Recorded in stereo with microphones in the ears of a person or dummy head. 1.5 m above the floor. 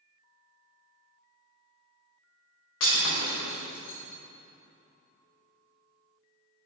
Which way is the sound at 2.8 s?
55° left (ahead or behind).